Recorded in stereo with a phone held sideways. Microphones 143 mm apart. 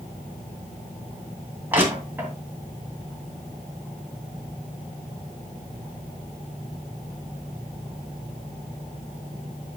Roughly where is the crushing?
Centre.